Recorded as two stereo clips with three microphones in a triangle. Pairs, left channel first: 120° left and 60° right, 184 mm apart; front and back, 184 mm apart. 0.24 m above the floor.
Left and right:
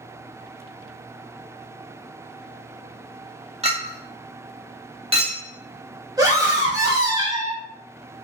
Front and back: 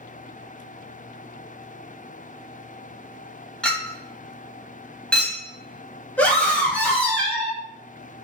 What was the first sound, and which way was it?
A clink, 80° right.